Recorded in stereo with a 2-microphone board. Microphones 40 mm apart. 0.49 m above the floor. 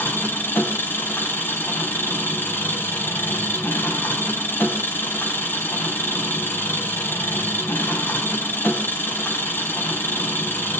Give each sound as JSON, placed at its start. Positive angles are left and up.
{"t": 0.0, "sound": "an engine running", "side_deg": 65, "distance_m": 2.5}